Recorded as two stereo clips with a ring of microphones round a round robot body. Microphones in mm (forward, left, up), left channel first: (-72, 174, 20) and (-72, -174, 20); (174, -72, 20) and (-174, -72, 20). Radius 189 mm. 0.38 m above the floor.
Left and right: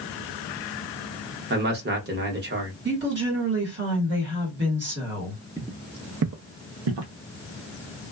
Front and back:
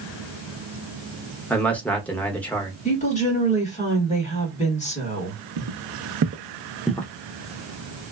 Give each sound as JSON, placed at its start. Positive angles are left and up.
{"t": 1.5, "sound": "a man speaking", "azimuth_deg": -80, "distance_m": 0.8}
{"t": 2.9, "sound": "a woman speaking", "azimuth_deg": -55, "distance_m": 1.5}
{"t": 5.6, "sound": "footsteps", "azimuth_deg": -175, "distance_m": 0.7}